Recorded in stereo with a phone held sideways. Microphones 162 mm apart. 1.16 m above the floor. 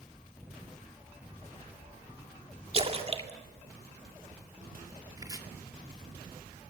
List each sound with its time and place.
2.7 s a splash: 40° right (ahead or behind), 1.9 m
5.2 s chopping: 25° right (ahead or behind), 2 m